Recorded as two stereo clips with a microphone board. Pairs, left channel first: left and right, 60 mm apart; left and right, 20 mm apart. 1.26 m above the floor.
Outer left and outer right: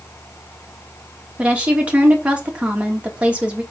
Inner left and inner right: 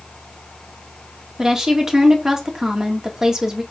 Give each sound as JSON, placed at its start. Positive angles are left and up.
{"t": 1.4, "sound": "a woman speaking", "side_deg": -25, "distance_m": 2.5}